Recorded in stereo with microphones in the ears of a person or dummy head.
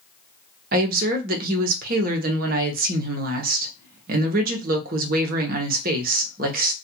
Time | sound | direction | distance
0.7 | a woman speaking | 55° right (ahead or behind) | 0.8 m